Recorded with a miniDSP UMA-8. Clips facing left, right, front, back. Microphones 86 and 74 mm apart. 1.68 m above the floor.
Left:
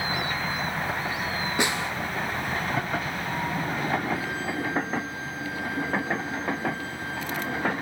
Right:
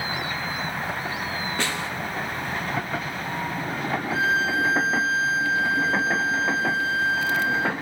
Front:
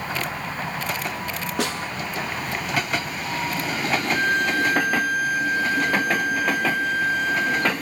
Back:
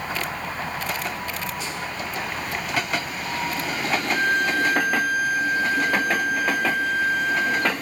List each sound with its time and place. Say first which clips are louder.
1.6 s a snare drum: left 3 dB, front 4 dB; 15° left, 3.5 m
4.1 s a violin: right 6 dB, back 1 dB; 90° right, 1.3 m